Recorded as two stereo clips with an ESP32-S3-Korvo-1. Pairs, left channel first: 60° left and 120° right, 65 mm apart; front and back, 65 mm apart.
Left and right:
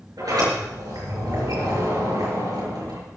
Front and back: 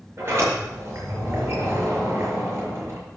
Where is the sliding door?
130° right, 7 m.